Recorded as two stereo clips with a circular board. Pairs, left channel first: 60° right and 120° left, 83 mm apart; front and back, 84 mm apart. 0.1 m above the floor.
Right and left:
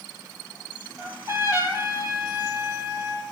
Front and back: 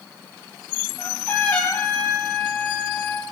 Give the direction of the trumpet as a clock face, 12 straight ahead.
10 o'clock.